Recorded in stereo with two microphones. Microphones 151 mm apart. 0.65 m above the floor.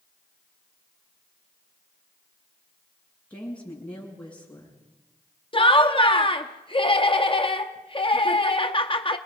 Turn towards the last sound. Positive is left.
turn(degrees=35)  # may be behind; listen again after turning